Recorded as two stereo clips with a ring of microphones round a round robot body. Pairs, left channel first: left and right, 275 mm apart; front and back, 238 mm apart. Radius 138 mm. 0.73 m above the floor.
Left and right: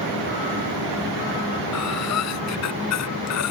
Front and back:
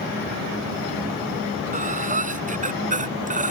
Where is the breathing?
125° left.